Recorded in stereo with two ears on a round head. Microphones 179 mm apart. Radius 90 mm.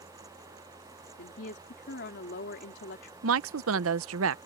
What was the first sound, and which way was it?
A woman speaking, 60° left (ahead or behind).